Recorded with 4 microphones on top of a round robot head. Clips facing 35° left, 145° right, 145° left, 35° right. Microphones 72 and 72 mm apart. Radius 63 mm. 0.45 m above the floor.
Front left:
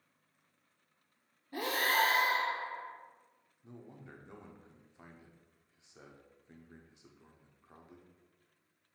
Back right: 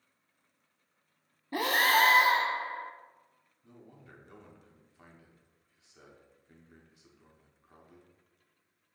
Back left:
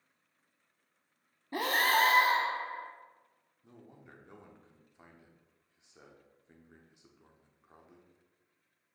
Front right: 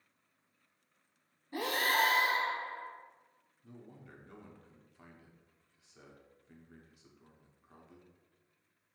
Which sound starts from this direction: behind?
Breathing, at 1.5 s.